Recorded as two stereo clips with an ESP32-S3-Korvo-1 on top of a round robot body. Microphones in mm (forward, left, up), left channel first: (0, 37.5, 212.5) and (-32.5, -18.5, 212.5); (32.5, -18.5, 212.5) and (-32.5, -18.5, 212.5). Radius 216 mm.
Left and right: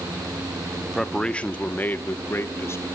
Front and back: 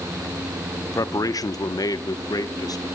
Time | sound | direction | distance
0.8 | a man speaking | 25° right | 1.1 m